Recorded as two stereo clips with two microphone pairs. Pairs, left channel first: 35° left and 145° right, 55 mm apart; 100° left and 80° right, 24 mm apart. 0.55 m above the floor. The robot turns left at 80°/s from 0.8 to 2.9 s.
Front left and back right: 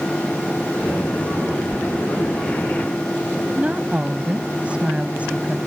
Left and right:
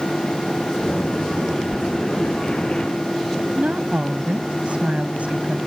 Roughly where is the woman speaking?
Right.